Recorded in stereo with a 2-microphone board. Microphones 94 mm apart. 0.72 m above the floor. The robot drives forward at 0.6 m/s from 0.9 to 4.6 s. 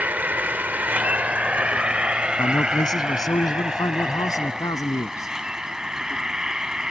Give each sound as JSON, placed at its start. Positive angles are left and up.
{"t": 0.0, "sound": "an insect", "side_deg": -20}
{"t": 2.4, "sound": "a man speaking", "side_deg": 45}